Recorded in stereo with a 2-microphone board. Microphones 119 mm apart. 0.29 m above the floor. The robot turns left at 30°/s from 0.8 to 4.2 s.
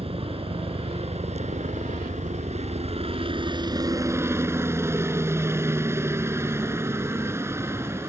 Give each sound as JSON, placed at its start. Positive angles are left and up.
{"t": 0.0, "sound": "a helicopter", "azimuth_deg": -55}